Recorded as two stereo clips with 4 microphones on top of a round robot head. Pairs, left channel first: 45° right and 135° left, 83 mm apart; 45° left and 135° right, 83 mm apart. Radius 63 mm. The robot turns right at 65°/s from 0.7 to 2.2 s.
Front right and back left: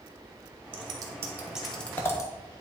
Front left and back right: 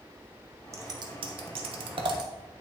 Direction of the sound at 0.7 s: 165° left.